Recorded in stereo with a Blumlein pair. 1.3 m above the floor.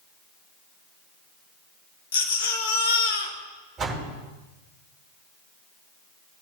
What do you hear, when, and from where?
2.1 s a baby crying: 60° left, 1.2 m
3.8 s a door slam: 20° right, 4.5 m